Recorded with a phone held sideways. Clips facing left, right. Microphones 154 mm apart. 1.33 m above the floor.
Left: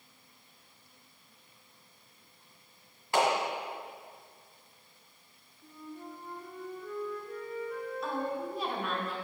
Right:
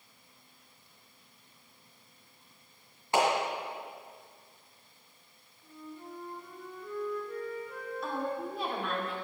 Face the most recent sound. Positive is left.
turn(degrees=0)  # may be behind; listen again after turning